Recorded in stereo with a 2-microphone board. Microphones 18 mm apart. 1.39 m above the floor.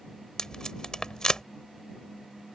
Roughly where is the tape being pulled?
Left.